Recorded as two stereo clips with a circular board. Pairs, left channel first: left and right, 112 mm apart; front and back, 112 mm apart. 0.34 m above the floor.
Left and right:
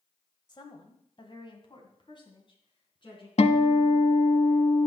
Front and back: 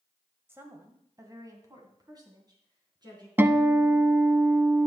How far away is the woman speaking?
About 1.7 m.